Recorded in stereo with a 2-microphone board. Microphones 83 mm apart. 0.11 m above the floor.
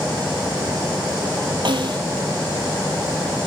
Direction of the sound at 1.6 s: 65° right (ahead or behind).